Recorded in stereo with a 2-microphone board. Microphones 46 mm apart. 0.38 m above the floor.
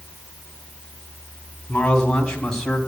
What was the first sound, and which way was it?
A man speaking, 20° left (ahead or behind).